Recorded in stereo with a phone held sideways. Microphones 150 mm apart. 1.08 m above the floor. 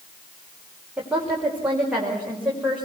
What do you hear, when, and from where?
1.0 s a woman speaking: 5° right (ahead or behind), 4.5 m; by 2.9 s 10° right (ahead or behind), 5.5 m